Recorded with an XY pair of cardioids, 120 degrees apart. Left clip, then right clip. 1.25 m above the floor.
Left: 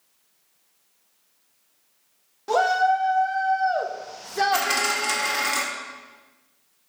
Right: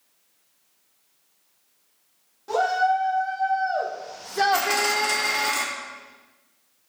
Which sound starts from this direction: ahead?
A dropped coin, at 4.5 s.